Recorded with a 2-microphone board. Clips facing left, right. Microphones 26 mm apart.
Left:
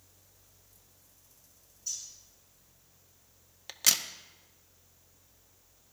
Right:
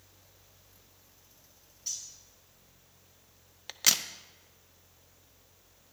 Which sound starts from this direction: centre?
A crack, at 3.7 s.